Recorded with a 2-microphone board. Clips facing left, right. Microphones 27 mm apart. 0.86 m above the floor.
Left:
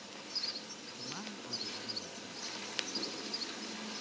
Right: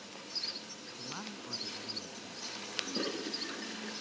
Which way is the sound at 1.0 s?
10° right (ahead or behind).